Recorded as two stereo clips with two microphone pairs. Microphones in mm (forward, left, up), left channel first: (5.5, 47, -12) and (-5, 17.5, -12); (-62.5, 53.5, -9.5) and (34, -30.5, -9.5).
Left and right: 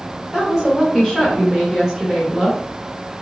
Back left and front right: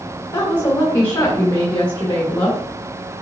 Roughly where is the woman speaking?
Behind.